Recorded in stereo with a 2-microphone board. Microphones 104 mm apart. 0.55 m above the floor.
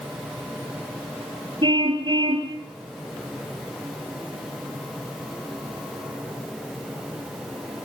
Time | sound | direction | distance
1.6 | a car horn | 50° right (ahead or behind) | 5 m